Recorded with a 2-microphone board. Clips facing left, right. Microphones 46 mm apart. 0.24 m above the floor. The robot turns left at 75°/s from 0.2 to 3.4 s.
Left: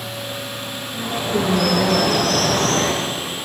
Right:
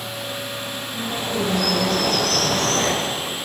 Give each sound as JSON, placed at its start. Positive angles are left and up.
{"t": 0.9, "sound": "a bird", "azimuth_deg": 180, "distance_m": 6.0}